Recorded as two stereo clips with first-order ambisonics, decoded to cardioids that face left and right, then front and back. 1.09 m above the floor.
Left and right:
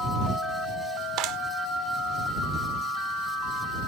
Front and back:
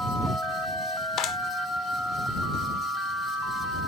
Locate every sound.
1.2 s a clap: 55° right